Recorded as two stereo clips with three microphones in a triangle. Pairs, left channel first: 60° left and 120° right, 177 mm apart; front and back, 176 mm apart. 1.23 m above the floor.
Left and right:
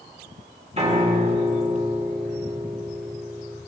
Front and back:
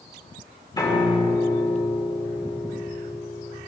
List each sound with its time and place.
0.8 s a piano: 70° right, 2 m